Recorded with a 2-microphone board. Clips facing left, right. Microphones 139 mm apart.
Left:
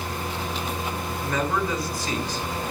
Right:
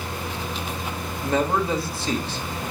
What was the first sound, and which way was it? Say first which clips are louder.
A man speaking: right 4 dB; 25° right (ahead or behind).